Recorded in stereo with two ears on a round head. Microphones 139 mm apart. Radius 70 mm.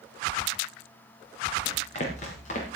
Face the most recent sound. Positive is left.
turn(degrees=50)  # may be behind; listen again after turning